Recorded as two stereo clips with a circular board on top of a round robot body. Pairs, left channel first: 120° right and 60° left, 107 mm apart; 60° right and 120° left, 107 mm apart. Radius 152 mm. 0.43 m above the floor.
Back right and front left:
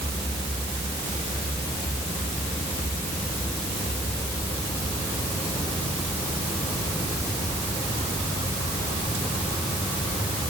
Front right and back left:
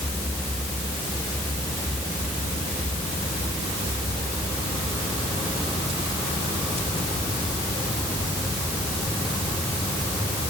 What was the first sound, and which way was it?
Only background noise.